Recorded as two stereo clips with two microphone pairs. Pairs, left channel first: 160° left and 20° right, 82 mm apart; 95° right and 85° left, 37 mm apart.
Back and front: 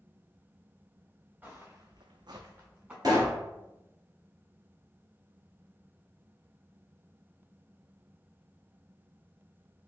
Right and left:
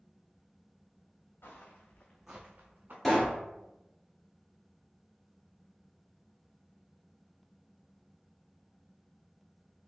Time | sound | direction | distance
1.4 | footsteps | 90° right | 1.2 m
3.0 | a pop | 10° right | 1.4 m